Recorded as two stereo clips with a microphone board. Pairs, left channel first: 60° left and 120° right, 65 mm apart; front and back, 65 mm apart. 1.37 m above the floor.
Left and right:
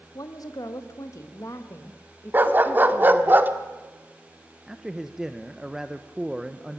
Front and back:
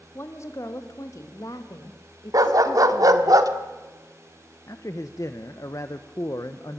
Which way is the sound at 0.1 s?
45° left.